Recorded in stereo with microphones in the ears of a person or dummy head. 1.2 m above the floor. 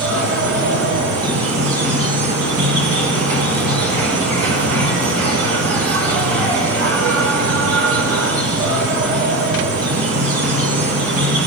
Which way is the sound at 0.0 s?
80° right.